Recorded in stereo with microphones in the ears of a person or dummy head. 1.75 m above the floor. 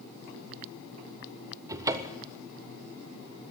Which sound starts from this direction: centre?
A cupboard door, at 1.7 s.